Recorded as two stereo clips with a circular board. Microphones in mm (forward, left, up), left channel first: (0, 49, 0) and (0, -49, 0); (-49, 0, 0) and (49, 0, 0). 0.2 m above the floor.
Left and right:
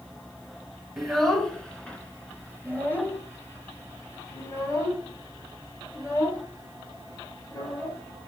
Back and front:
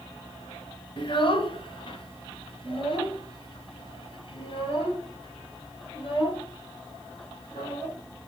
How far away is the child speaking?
About 1.2 m.